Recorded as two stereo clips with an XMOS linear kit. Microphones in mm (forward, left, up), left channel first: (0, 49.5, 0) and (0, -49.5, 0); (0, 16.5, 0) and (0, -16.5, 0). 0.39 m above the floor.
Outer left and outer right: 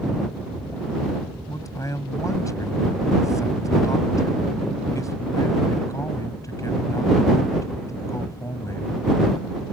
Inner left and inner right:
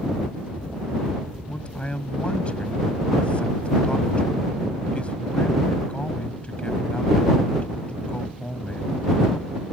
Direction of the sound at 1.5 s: 35° left (ahead or behind).